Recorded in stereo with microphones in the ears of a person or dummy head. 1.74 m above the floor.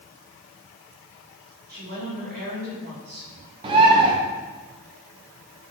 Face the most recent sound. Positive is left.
turn(degrees=-25)  # may be behind; listen again after turning